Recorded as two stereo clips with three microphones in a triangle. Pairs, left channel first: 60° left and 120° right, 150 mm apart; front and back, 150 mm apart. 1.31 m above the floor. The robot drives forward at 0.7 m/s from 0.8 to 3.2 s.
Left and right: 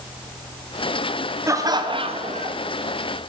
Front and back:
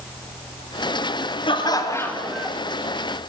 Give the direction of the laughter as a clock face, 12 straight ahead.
2 o'clock.